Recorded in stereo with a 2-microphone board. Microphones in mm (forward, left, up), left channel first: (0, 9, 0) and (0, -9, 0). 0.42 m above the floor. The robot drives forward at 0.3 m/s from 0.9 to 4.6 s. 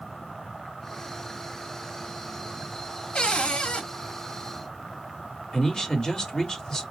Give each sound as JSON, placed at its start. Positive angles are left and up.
{"t": 3.1, "sound": "a cupboard door", "side_deg": 65, "distance_m": 1.4}
{"t": 5.5, "sound": "a man speaking", "side_deg": 30, "distance_m": 1.5}